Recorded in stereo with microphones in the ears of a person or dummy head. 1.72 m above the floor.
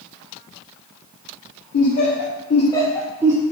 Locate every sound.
1.7 s laughter: 55° left (ahead or behind), 0.9 m; by 3.4 s 20° right (ahead or behind), 0.5 m